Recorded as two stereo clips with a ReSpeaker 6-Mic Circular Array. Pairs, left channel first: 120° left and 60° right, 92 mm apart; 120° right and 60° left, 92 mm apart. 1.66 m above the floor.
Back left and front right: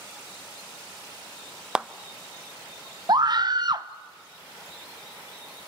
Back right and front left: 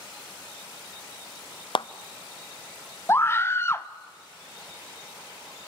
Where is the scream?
65° right, 0.8 m.